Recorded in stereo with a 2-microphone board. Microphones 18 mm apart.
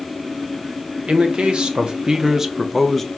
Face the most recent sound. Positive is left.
turn(degrees=10)  # may be behind; listen again after turning